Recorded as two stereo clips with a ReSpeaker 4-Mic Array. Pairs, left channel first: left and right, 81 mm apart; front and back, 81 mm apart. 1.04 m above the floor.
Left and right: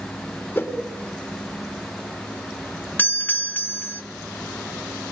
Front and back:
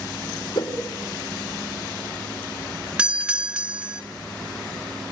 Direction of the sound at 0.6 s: 25° left.